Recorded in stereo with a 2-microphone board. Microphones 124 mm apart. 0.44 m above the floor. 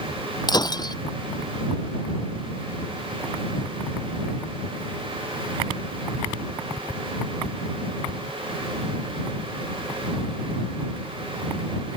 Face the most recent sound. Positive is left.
turn(degrees=35)  # may be behind; listen again after turning